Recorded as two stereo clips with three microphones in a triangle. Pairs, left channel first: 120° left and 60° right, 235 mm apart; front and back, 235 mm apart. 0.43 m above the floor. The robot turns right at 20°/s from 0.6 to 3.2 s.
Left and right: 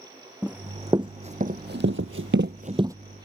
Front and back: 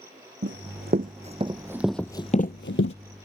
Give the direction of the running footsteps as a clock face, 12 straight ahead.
5 o'clock.